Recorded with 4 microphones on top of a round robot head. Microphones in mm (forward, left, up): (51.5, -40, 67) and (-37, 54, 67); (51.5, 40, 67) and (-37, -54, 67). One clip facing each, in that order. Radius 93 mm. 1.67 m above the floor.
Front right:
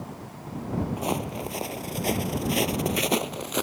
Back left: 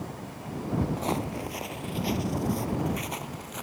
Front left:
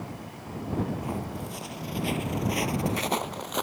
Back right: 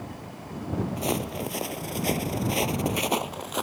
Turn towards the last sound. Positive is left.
turn(degrees=-45)